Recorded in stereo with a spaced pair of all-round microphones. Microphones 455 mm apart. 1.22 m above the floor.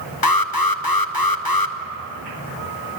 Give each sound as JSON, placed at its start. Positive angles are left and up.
{"t": 0.2, "sound": "an alarm", "side_deg": 50, "distance_m": 1.1}